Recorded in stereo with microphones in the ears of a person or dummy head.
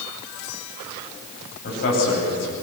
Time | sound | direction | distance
1.6 | a man speaking | 55° left (ahead or behind) | 9.5 m